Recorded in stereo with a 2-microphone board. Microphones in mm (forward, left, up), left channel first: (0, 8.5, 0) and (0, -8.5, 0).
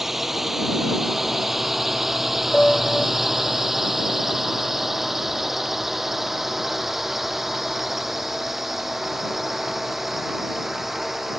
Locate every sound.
0.0 s a drone: 15° right (ahead or behind); by 11.4 s 10° right (ahead or behind)
2.5 s a piano: 85° left